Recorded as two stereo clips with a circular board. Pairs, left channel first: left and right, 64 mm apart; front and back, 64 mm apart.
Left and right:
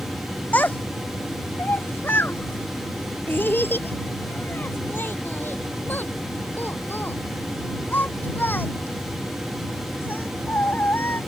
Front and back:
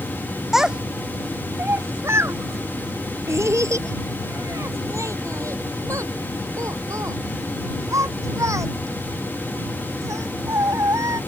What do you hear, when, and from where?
0.5 s a child speaking: 100° left; by 11.2 s 150° left